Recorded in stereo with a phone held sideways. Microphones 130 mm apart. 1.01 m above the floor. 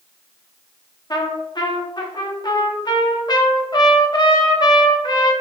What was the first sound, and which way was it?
A trumpet, 30° left (ahead or behind).